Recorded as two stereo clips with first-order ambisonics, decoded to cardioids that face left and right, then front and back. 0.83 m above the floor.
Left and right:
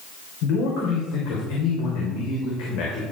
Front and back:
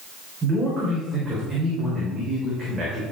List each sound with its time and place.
0.4 s a man speaking: 95° left, 3 m